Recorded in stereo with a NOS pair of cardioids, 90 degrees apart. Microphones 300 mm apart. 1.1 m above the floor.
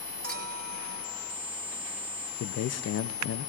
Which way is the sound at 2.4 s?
55° left.